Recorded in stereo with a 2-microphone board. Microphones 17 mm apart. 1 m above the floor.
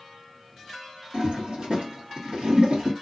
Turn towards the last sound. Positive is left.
turn(degrees=-75)  # may be behind; listen again after turning